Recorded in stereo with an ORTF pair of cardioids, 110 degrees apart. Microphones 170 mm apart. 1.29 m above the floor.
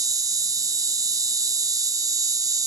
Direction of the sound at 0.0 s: 20° right.